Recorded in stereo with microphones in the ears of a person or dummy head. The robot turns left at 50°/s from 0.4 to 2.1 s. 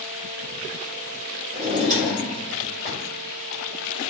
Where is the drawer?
30° right (ahead or behind), 1.8 m; by 3.0 s 55° right (ahead or behind), 1.8 m.